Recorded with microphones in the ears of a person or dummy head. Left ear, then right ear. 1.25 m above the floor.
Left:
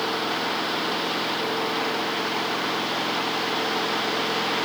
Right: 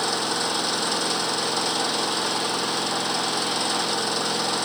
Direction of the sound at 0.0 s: 80° right.